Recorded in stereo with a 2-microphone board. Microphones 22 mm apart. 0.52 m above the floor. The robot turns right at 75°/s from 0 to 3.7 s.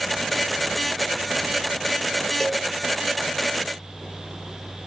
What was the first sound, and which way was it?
A cowbell, 10° left (ahead or behind).